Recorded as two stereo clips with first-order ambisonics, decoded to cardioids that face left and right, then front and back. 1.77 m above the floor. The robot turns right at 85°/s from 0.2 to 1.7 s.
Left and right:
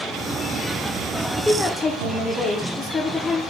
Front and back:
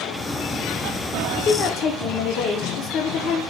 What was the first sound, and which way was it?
A woman speaking, 10° right.